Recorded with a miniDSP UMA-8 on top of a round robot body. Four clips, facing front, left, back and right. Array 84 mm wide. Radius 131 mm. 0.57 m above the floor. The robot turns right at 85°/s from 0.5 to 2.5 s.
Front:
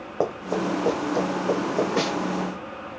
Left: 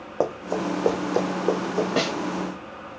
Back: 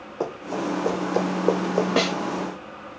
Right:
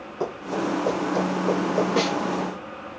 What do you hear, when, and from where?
0.2 s running footsteps: 55° left, 1.7 m; by 1.9 s 160° right, 2.5 m
2.0 s a snare drum: 170° left, 1.6 m; by 2.1 s 175° right, 1.6 m